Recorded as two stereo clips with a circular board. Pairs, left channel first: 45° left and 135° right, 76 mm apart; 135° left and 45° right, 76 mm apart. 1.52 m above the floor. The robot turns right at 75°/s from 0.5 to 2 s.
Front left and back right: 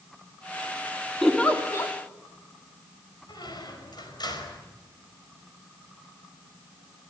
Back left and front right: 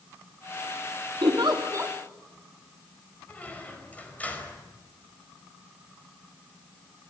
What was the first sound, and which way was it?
A giggle, 45° right.